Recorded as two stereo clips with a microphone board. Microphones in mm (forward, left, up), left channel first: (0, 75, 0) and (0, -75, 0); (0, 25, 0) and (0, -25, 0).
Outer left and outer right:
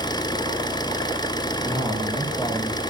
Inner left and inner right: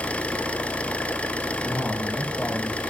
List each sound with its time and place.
0.0 s an engine running: 25° left (ahead or behind), 1.1 m
1.6 s a man speaking: 10° left (ahead or behind), 3 m